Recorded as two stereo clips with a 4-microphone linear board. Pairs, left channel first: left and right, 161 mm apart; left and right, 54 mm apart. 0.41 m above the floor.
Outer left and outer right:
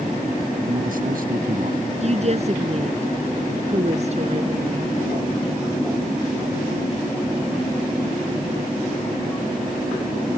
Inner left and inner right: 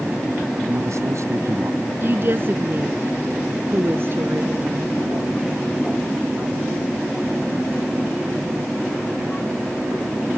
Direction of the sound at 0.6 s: 70° right (ahead or behind).